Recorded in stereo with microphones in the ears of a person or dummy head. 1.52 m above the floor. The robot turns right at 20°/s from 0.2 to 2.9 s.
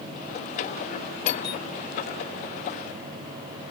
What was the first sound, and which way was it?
A doorbell, 70° left (ahead or behind).